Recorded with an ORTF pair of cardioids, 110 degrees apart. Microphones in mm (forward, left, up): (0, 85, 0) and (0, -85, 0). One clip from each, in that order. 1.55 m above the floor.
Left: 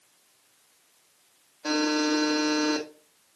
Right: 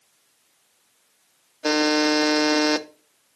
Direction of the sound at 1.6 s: 50° right.